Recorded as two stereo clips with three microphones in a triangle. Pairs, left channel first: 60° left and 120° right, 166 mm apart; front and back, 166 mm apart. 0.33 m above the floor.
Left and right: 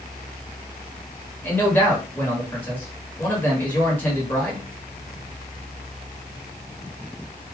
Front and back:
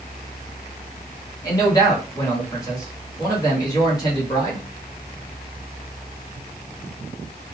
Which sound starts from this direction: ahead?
A man speaking, at 1.4 s.